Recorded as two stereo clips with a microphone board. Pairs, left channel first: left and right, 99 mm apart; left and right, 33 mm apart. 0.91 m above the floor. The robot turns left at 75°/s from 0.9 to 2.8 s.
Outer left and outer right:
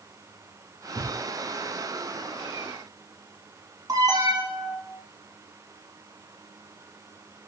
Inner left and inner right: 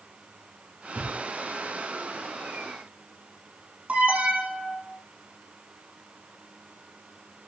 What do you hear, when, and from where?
0.9 s a thud: 45° right (ahead or behind), 7.5 m; by 1.2 s 60° right (ahead or behind), 7.5 m
3.9 s an alarm: 35° right (ahead or behind), 8 m